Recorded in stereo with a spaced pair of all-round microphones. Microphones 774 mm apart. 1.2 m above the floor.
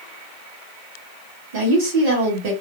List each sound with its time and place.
1.5 s a woman speaking: 75° right (ahead or behind), 1.5 m